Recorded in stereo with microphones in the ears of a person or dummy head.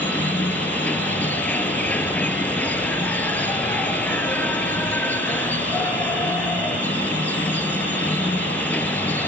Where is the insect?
10° left (ahead or behind).